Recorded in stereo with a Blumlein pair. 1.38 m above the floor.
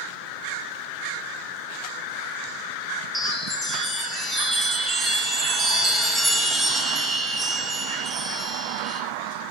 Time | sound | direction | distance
3.1 | a chime | 15° right | 2 m